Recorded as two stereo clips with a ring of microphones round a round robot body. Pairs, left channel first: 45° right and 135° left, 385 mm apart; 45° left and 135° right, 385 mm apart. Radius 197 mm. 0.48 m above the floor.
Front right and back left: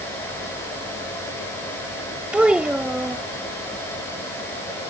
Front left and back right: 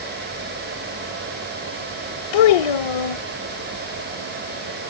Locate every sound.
2.3 s a child speaking: 50° left